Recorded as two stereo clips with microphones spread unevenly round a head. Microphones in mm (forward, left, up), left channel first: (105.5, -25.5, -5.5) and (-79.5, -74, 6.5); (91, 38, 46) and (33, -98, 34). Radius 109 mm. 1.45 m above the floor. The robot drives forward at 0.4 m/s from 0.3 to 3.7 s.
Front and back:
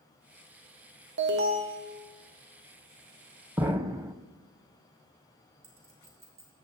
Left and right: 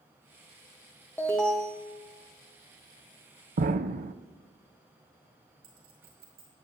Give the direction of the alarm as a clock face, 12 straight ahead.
7 o'clock.